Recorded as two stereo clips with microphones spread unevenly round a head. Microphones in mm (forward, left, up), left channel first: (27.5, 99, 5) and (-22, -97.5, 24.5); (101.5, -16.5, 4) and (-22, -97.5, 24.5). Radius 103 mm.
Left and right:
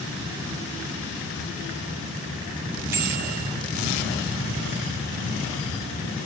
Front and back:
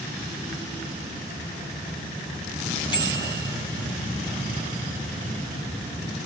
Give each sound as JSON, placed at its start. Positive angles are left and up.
{"t": 2.9, "sound": "a bicycle bell", "azimuth_deg": -25, "distance_m": 9.0}